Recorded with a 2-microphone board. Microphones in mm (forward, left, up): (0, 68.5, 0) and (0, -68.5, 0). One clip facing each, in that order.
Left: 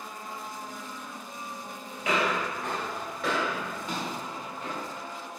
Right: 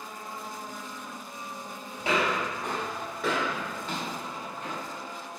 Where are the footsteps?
30° right (ahead or behind), 1.5 m; by 4.9 s 35° left (ahead or behind), 1.6 m.